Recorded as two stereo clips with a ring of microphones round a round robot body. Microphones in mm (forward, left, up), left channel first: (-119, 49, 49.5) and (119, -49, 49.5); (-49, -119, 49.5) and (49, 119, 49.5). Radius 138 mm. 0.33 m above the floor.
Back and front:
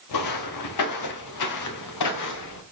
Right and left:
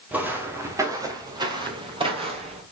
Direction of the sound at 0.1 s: 150° left.